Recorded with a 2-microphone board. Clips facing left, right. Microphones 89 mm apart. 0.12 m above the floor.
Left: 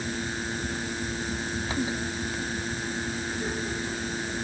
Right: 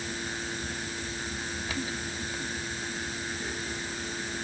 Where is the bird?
I don't hear a bird.